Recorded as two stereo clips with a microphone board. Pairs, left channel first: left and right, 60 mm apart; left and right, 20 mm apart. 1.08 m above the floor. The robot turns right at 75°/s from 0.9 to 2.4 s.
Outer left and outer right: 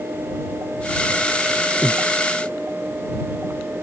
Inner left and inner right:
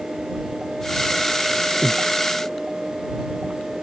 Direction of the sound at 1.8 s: Centre (ahead or behind).